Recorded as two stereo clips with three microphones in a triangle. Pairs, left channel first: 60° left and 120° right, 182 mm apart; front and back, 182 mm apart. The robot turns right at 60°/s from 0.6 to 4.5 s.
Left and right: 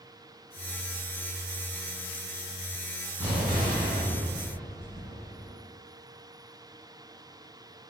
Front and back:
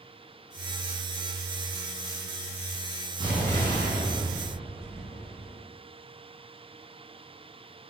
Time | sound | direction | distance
3.2 | an explosion | 40° right | 1.7 m